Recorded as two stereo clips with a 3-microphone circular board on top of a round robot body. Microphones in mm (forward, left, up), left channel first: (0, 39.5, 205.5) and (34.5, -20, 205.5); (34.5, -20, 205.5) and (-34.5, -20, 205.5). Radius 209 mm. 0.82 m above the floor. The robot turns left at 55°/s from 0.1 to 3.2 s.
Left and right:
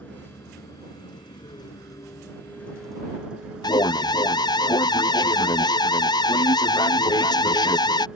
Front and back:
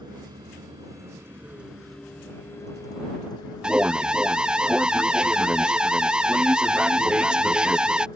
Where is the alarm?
105° left.